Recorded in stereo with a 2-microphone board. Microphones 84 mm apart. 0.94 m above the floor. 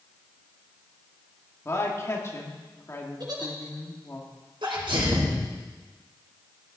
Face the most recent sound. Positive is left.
turn(degrees=-80)